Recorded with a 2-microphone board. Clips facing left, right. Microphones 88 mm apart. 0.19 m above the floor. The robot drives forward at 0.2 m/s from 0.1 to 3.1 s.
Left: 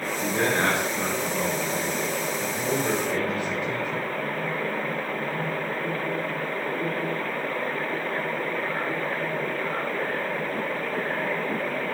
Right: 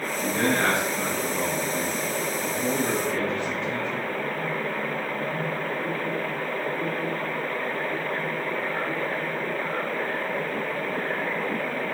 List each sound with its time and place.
0.2 s a man speaking: 15° left (ahead or behind), 1.2 m; by 4.1 s 10° left (ahead or behind), 1.6 m